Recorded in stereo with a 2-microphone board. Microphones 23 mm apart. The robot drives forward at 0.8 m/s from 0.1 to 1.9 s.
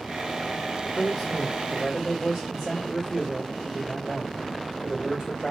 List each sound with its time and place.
0.9 s a man speaking: centre (ahead or behind), 1.4 m